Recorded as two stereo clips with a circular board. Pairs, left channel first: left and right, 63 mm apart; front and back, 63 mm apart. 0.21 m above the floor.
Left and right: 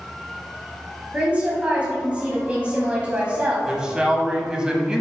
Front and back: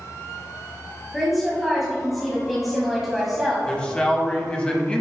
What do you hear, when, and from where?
1.1 s a woman speaking: 90° right, 1.3 m
3.7 s a man speaking: 40° right, 1.0 m